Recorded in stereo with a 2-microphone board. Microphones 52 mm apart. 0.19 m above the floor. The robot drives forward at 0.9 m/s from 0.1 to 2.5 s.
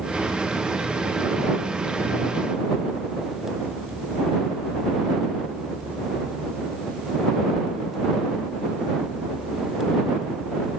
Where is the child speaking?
I don't hear a child speaking.